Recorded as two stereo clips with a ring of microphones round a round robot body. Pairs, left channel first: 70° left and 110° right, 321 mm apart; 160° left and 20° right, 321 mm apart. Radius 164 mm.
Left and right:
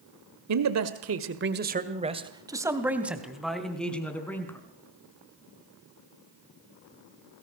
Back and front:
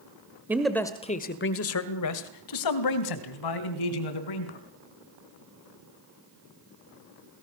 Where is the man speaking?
105° right, 1.8 m; by 4.6 s 150° left, 5 m.